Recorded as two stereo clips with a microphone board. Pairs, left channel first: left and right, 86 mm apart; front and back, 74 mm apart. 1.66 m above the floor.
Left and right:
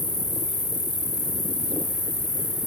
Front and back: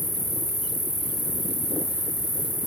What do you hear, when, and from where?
0.0 s an insect: 65° left, 7.5 m